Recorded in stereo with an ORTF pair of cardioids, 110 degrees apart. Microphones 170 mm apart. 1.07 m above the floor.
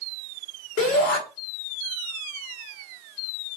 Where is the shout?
55° left, 1.5 m.